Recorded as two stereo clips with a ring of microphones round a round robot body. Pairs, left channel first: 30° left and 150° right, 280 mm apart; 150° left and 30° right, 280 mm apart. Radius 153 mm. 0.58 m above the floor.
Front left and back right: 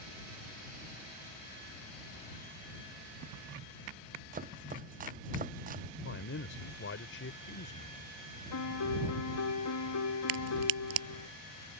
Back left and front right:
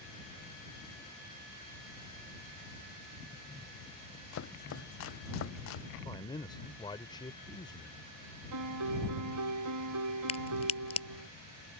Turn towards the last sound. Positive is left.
turn(degrees=-140)